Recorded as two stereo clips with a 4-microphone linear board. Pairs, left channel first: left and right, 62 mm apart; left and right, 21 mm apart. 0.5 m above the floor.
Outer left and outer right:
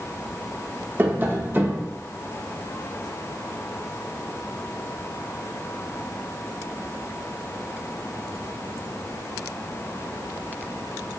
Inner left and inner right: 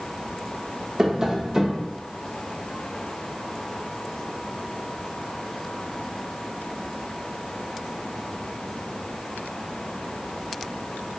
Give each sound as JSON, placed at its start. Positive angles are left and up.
{"t": 1.0, "sound": "tapping", "side_deg": -30, "distance_m": 0.9}